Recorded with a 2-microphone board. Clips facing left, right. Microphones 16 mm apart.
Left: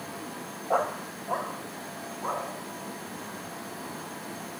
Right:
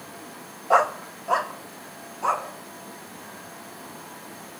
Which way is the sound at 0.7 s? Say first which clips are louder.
Right 7 dB; 65° right (ahead or behind).